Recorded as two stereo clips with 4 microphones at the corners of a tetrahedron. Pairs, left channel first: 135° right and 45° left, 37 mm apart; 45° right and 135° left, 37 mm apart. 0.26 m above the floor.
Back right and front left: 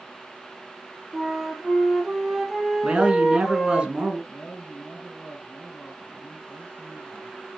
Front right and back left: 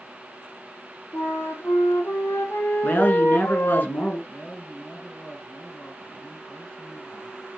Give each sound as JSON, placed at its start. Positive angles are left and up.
{"t": 1.1, "sound": "a flute", "azimuth_deg": -40, "distance_m": 1.2}
{"t": 2.8, "sound": "a man speaking", "azimuth_deg": -15, "distance_m": 2.5}
{"t": 4.3, "sound": "a man speaking", "azimuth_deg": -90, "distance_m": 3.0}